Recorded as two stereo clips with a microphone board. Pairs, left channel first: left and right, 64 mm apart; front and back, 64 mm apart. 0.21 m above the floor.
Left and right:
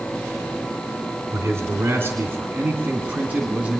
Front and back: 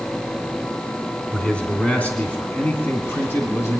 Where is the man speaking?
70° right, 2.5 m; by 3.8 s 25° right, 2 m.